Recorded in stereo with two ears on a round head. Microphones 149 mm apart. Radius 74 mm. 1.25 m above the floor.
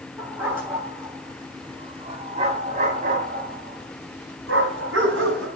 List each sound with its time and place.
0.2 s a dog barking: 10° right (ahead or behind), 6 m; by 5.5 s 85° right, 5.5 m